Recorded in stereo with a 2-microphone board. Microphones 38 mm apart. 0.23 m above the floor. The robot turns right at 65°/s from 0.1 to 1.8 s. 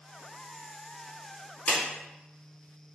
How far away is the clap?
About 1.9 m.